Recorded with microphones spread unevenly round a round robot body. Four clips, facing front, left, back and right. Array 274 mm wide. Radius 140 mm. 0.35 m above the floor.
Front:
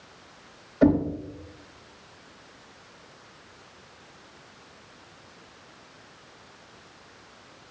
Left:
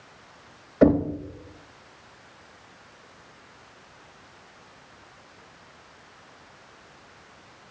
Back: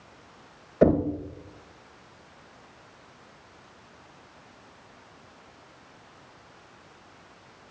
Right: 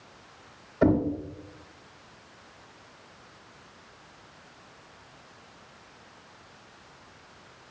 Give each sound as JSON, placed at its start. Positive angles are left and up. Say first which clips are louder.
{"t": 0.8, "sound": "knocking", "louder": "left 4 dB, even", "azimuth_deg": 135, "distance_m": 1.4}